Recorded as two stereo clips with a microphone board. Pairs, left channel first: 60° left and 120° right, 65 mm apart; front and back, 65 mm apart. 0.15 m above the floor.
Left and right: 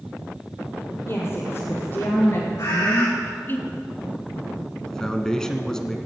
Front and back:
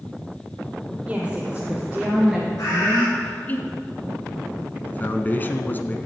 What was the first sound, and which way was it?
A woman speaking, 105° left.